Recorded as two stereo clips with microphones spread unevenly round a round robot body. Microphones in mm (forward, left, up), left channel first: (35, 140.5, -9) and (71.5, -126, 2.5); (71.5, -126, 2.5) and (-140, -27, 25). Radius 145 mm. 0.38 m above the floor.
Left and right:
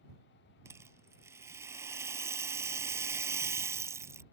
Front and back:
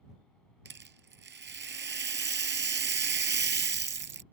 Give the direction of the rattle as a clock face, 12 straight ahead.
5 o'clock.